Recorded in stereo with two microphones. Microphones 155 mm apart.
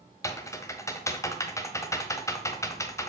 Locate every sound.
0.2 s typing on a keyboard: 20° left (ahead or behind), 1.5 m